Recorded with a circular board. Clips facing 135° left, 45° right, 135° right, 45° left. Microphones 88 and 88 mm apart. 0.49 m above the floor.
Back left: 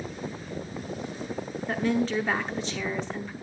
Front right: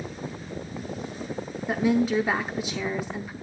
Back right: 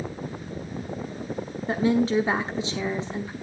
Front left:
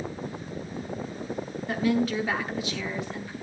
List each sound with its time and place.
1.7 s a woman speaking: 120° right, 0.8 m